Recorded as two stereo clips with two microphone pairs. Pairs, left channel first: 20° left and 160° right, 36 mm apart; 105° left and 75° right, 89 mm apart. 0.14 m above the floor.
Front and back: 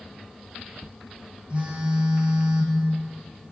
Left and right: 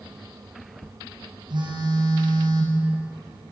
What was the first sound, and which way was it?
A phone buzzing, 100° right.